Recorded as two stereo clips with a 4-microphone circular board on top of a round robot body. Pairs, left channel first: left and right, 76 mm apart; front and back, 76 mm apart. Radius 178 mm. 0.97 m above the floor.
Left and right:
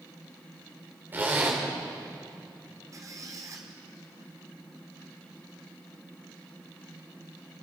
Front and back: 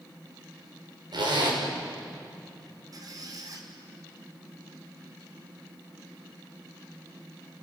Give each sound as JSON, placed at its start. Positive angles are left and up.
{"t": 1.1, "sound": "a zipper", "azimuth_deg": -155, "distance_m": 4.5}
{"t": 2.9, "sound": "a squeak", "azimuth_deg": -140, "distance_m": 2.5}